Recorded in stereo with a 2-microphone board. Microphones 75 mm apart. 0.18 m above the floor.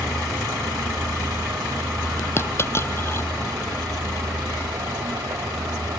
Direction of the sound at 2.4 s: 35° left (ahead or behind).